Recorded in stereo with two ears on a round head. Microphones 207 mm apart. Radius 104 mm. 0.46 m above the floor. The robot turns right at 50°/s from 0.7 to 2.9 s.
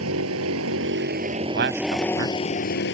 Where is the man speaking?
140° right; by 2.4 s 90° right.